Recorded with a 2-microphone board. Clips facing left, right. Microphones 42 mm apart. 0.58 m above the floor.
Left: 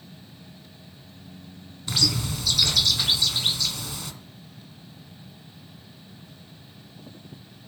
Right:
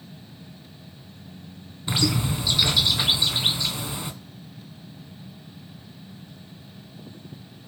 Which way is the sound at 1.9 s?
20° right (ahead or behind).